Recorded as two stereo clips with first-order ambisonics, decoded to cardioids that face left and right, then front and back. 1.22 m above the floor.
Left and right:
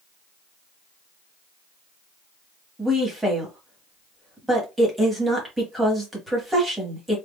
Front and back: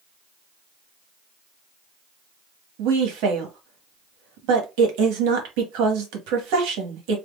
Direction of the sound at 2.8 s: 175° right.